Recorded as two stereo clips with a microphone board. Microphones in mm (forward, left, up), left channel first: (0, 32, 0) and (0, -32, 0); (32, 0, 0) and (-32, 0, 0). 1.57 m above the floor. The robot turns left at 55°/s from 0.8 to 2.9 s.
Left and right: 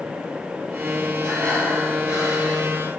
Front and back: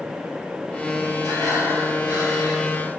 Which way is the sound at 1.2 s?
170° left.